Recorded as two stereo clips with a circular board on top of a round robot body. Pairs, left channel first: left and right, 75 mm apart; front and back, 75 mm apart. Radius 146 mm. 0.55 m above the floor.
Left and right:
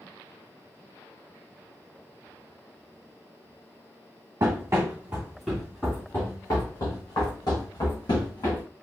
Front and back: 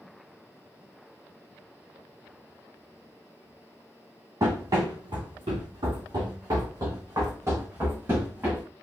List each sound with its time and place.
4.4 s running footsteps: 135° right, 1.0 m; by 8.7 s 115° left, 1.9 m